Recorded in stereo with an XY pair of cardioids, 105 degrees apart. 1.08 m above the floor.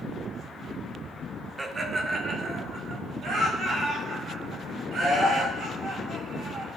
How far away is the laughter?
About 1.3 m.